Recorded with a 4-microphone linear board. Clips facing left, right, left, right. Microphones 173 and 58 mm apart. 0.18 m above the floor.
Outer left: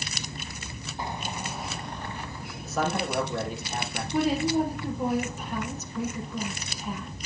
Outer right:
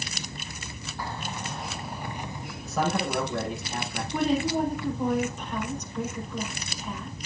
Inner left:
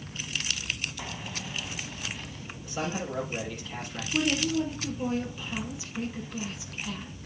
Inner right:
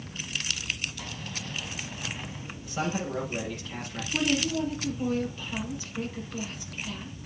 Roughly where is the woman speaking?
Centre.